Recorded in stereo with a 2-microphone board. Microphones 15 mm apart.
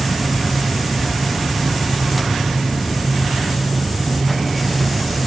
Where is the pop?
I don't hear a pop.